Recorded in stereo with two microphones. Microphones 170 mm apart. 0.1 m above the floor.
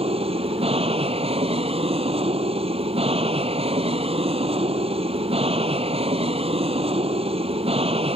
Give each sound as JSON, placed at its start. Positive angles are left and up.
{"t": 0.0, "sound": "an aircraft", "side_deg": -35}